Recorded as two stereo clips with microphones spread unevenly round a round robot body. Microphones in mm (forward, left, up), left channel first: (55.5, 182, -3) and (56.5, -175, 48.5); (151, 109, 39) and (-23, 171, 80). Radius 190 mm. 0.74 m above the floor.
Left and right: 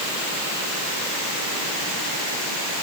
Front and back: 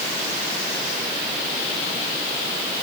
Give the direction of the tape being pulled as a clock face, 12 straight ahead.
No tape being pulled in this recording.